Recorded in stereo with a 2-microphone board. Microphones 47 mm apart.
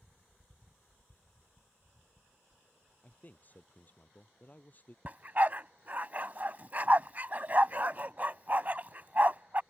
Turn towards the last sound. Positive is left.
turn(degrees=-40)  # may be behind; listen again after turning